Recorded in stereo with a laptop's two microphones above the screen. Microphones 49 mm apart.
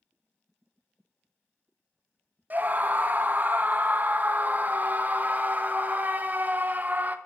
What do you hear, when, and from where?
2.5 s a scream: 35° right (ahead or behind), 0.6 m